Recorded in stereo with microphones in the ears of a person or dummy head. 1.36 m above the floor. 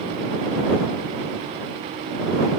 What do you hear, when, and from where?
Only background noise.